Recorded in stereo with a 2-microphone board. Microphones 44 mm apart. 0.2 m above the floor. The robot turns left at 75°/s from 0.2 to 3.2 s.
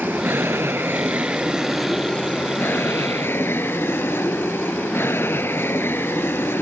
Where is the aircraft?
55° right; by 6.6 s 80° left.